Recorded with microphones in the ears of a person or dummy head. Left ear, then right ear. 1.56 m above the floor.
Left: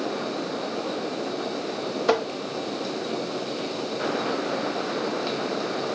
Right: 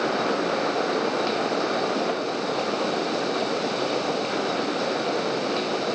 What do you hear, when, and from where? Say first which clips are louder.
2.1 s tapping: left 4 dB; 70° left (ahead or behind), 0.9 m